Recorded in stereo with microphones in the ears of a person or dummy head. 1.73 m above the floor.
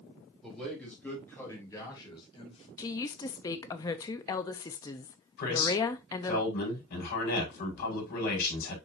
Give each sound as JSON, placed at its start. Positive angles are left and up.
{"t": 0.4, "sound": "a man speaking", "side_deg": 0, "distance_m": 4.5}
{"t": 2.8, "sound": "a woman speaking", "side_deg": 20, "distance_m": 0.6}
{"t": 5.4, "sound": "a man speaking", "side_deg": 60, "distance_m": 5.0}